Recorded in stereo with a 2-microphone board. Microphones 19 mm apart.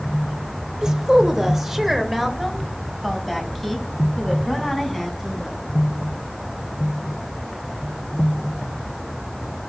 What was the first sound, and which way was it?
A woman speaking, 35° right (ahead or behind).